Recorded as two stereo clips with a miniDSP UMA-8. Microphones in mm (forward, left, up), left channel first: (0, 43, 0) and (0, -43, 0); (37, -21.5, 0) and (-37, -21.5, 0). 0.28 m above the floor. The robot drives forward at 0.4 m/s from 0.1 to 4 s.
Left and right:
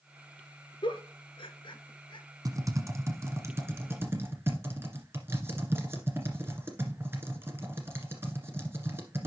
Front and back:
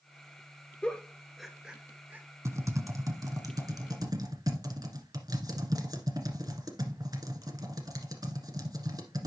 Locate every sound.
0.8 s a giggle: 75° left, 0.8 m; by 2.2 s 115° left, 0.9 m
2.5 s typing on a keyboard: 135° right, 1.0 m; by 9.3 s 150° right, 1.5 m